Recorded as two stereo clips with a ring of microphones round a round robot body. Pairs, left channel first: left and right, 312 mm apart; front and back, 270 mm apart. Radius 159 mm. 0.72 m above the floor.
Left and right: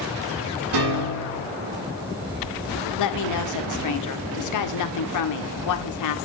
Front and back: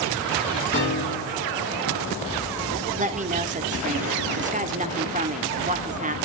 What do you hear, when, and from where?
0.7 s a piano: 65° right, 7.5 m
3.0 s a woman speaking: 120° left, 2.0 m